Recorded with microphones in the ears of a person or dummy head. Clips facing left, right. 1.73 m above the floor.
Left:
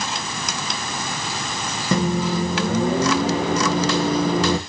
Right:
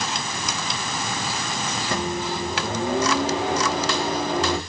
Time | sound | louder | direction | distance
1.9 | a microwave | left 7 dB | 65° left (ahead or behind) | 1.8 m